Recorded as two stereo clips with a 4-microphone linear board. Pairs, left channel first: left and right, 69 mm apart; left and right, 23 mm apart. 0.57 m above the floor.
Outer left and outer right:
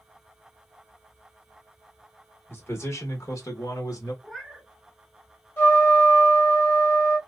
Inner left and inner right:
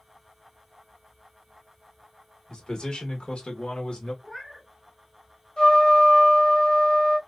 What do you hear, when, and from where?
2.5 s a man speaking: 35° left (ahead or behind), 1.8 m; by 4.1 s 55° left (ahead or behind), 1.5 m
4.2 s a cat meowing: 5° left (ahead or behind), 1.1 m
5.6 s a trumpet: 35° left (ahead or behind), 1.7 m